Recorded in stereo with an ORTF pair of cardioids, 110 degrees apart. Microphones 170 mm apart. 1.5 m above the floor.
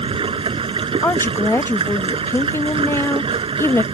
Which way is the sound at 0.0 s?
30° right.